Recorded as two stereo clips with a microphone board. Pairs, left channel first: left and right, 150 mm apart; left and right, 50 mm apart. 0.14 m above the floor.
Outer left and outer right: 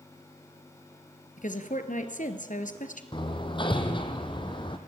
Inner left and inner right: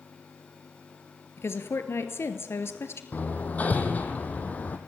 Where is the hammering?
35° left (ahead or behind), 2.5 m.